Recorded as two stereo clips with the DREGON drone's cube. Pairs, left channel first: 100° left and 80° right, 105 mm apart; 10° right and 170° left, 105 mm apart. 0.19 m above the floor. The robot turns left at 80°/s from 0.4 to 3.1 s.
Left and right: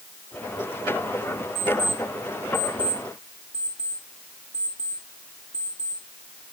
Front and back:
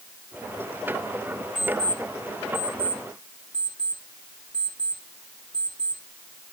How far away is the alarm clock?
About 6 m.